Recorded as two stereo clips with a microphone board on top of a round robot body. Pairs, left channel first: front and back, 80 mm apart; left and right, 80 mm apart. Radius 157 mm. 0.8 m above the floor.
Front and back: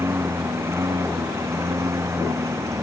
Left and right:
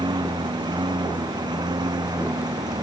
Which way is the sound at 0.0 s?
120° right.